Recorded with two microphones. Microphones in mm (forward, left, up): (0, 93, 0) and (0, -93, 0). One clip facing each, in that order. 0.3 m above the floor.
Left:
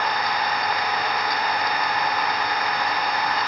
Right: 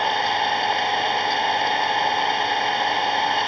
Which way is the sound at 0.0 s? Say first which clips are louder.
Right 2 dB; 25° right (ahead or behind).